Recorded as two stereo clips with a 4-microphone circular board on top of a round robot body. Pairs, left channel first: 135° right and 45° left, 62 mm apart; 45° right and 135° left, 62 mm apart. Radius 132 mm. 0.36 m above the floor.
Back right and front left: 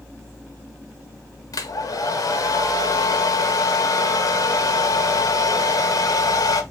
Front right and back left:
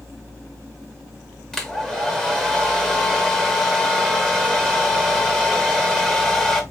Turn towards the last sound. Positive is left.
turn(degrees=-125)